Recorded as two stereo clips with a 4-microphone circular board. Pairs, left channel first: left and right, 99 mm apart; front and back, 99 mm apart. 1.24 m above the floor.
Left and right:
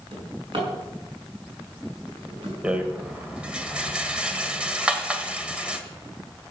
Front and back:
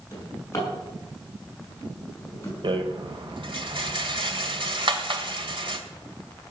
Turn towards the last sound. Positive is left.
turn(degrees=-165)